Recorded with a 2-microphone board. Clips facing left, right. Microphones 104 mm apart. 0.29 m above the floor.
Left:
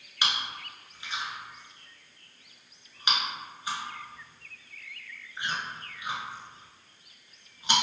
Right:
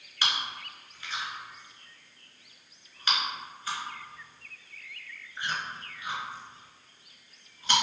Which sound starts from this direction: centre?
Chewing, at 0.2 s.